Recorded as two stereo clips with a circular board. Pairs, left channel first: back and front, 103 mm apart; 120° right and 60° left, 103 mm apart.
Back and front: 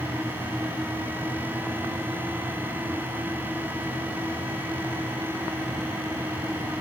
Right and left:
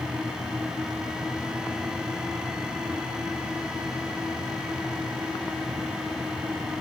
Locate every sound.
Only background noise.